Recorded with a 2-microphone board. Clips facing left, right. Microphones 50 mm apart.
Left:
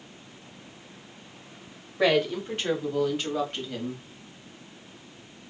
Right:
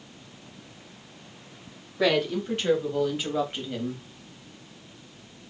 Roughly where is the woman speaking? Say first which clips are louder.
Left 1 dB; centre.